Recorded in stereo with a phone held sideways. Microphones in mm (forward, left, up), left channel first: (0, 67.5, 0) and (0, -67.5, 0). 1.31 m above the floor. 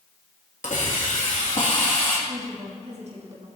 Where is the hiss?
70° left (ahead or behind), 2.5 m.